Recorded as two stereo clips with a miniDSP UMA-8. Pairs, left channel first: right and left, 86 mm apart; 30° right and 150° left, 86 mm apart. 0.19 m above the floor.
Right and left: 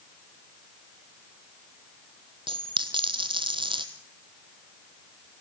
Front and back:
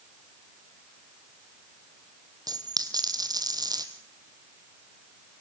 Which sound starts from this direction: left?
A dropped coin, at 2.5 s.